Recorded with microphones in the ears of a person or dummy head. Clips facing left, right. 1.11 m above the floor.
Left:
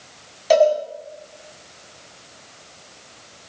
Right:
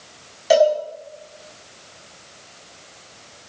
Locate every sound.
0.5 s a cowbell: 5° right (ahead or behind), 5.5 m